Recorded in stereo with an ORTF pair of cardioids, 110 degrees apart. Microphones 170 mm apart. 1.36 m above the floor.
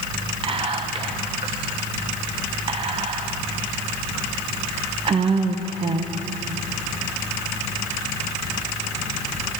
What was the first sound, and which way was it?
Whispering, 35° right.